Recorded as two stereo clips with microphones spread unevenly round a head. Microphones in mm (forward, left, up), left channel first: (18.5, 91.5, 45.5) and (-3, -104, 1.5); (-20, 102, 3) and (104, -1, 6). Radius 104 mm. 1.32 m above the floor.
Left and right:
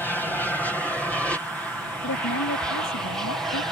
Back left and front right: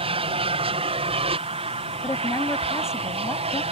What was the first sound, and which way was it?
An aircraft, 5° right.